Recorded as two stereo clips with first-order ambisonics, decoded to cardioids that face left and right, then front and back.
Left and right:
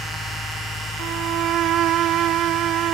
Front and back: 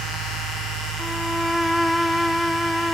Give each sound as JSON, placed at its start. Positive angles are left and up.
{"t": 1.0, "sound": "a violin", "azimuth_deg": -85}